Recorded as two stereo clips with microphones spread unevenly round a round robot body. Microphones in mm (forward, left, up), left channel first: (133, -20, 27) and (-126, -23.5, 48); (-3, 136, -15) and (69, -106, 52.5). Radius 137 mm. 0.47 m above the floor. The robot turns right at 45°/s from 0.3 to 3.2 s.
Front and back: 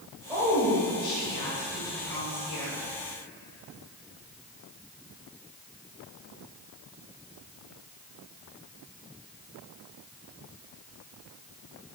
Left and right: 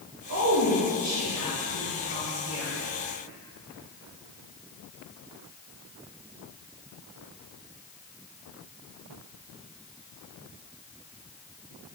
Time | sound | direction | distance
0.3 | a woman speaking | 100° right | 2.5 m